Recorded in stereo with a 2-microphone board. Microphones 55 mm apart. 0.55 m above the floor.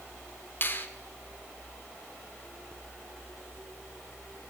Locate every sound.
0.6 s a finger snap: 40° left (ahead or behind), 0.9 m